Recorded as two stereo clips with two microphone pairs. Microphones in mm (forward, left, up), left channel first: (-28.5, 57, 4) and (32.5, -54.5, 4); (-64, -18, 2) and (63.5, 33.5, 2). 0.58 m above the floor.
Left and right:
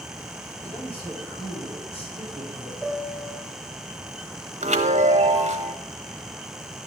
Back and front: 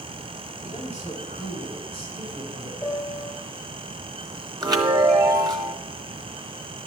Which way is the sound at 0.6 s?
160° left.